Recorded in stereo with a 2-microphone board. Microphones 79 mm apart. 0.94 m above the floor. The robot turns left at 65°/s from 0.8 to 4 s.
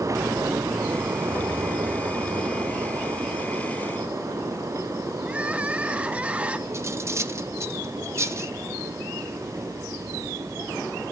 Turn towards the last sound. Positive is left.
turn(degrees=-35)  # may be behind; listen again after turning